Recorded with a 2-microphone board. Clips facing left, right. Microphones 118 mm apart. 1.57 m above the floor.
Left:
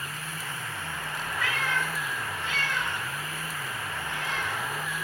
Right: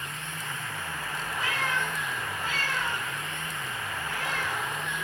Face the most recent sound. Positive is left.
turn(degrees=-60)  # may be behind; listen again after turning